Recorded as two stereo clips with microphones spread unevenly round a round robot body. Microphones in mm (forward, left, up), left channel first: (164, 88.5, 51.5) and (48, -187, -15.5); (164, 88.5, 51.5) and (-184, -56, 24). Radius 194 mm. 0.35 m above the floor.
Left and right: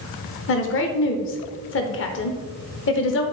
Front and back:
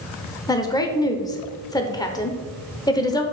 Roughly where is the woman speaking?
Left.